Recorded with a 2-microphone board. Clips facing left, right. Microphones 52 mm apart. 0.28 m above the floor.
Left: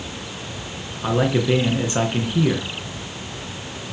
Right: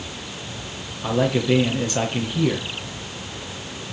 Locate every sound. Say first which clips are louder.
1.0 s a man speaking: left 1 dB; 25° left (ahead or behind), 4 m